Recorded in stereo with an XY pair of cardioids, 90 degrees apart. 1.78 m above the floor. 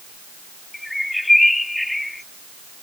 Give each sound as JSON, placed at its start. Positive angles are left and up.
{"t": 0.7, "sound": "a bird", "azimuth_deg": 10}